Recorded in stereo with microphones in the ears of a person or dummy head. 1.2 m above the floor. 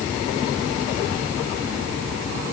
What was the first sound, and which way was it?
Only background noise.